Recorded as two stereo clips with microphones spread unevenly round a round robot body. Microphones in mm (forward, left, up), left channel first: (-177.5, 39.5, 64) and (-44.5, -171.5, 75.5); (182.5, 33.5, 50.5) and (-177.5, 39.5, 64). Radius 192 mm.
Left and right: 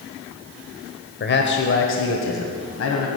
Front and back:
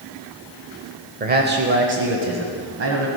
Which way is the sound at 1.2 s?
120° left.